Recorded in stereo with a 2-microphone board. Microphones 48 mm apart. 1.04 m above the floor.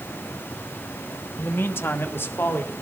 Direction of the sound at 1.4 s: 45° left (ahead or behind).